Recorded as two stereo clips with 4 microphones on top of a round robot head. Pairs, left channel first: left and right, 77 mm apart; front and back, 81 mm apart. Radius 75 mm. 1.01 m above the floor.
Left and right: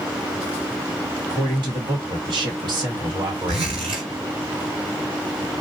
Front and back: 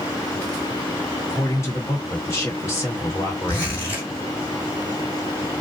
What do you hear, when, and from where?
1.3 s a man speaking: 60° right, 1.6 m
3.5 s a zipper: 70° right, 1.6 m